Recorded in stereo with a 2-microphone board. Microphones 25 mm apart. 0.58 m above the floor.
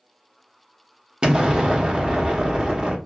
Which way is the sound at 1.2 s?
35° right (ahead or behind).